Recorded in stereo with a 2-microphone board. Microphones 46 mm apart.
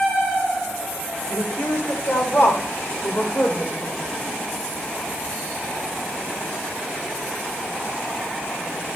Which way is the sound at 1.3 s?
75° left (ahead or behind).